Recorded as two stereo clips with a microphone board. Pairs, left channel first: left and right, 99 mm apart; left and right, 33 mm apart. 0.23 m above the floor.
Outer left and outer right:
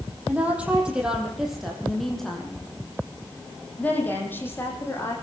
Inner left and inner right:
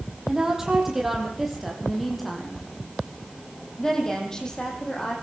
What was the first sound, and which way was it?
A woman speaking, 15° right (ahead or behind).